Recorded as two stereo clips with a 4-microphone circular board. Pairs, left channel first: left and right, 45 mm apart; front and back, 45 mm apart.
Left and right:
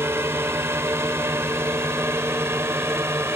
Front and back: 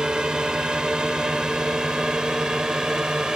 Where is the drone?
110° right.